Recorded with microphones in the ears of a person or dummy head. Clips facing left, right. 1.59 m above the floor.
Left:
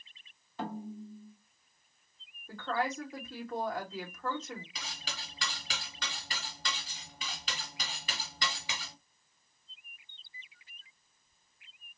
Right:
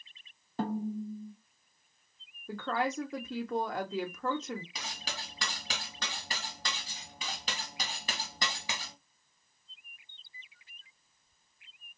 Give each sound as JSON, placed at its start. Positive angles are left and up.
{"t": 0.6, "sound": "a snare drum", "side_deg": -30, "distance_m": 0.9}
{"t": 2.5, "sound": "a woman speaking", "side_deg": -55, "distance_m": 1.1}
{"t": 4.8, "sound": "cutlery clinking", "side_deg": -35, "distance_m": 1.5}